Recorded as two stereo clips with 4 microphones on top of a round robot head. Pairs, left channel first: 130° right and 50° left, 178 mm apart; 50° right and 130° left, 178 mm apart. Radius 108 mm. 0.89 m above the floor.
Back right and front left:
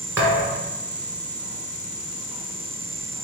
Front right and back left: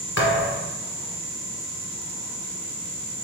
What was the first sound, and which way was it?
A thud, 30° right.